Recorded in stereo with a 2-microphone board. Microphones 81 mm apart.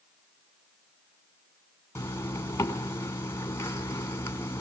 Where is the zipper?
30° left (ahead or behind), 2 m.